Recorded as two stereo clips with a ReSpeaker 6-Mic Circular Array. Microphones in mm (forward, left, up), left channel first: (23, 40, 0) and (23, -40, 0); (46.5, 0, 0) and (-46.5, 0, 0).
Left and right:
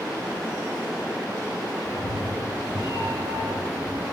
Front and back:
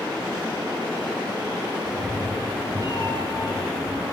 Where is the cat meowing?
115° right, 3 m; by 4.0 s 145° right, 4 m.